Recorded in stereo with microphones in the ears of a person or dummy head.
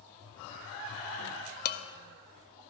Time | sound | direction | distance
1.6 | dishes clattering | 50° left (ahead or behind) | 0.5 m